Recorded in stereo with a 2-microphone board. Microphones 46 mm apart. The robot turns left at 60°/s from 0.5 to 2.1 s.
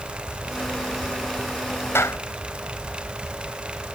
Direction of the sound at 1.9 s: 65° left (ahead or behind).